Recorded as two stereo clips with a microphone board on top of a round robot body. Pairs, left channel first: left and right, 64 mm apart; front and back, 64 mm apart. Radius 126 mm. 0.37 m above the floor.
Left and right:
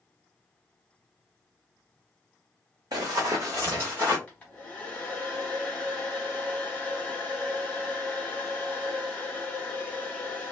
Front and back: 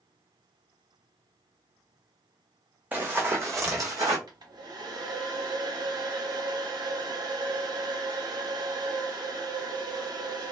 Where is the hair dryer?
160° left, 0.5 m.